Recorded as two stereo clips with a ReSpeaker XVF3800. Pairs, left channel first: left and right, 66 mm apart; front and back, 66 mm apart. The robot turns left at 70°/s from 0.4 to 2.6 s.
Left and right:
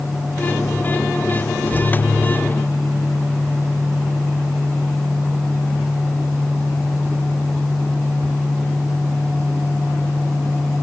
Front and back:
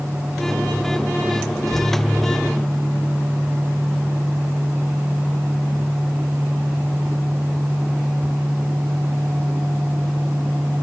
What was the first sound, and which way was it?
Only background noise.